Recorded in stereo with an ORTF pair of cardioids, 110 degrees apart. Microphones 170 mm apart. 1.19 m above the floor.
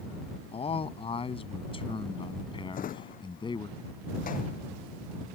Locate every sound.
0.5 s a man speaking: 35° left; by 3.7 s 25° left
2.7 s a drawer: 55° left